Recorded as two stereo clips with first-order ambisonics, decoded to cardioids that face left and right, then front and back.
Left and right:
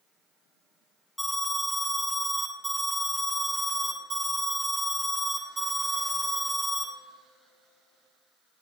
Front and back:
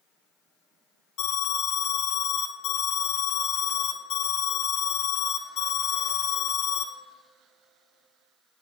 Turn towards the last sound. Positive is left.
turn(degrees=-5)